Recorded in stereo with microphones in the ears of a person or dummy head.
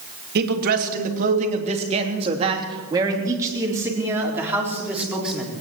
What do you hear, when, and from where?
0.3 s a man speaking: 50° right (ahead or behind), 2.5 m; by 5.5 s centre (ahead or behind), 4 m